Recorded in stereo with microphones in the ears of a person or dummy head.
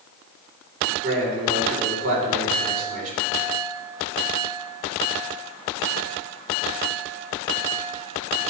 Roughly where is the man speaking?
Right.